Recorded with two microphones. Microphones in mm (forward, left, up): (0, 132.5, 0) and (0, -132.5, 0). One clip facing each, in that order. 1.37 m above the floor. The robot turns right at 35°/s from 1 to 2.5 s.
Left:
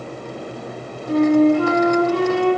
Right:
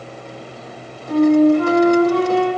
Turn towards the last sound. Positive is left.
turn(degrees=80)